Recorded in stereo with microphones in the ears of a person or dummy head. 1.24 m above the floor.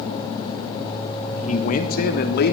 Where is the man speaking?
35° left (ahead or behind), 2.5 m; by 2.5 s 55° left (ahead or behind), 3.5 m.